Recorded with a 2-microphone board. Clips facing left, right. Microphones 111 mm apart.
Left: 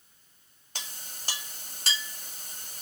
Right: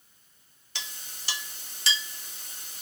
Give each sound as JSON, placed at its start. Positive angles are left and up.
{"t": 0.8, "sound": "a clink", "side_deg": 45, "distance_m": 1.0}